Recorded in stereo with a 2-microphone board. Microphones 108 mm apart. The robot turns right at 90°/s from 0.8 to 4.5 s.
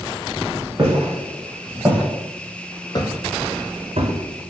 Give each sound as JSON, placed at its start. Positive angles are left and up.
{"t": 0.8, "sound": "footsteps", "side_deg": -40, "distance_m": 1.3}